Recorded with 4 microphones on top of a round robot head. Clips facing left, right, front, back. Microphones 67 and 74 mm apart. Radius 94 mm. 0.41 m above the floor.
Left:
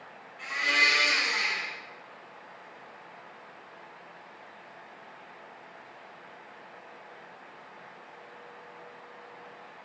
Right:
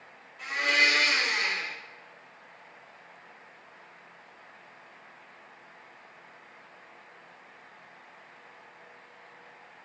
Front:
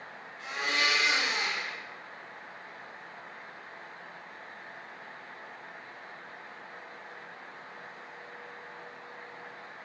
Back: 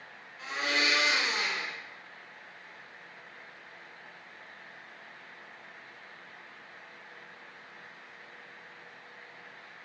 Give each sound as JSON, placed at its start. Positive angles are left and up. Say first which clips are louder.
{"t": 0.4, "sound": "a blender", "louder": "right 1 dB, even", "azimuth_deg": -175, "distance_m": 4.0}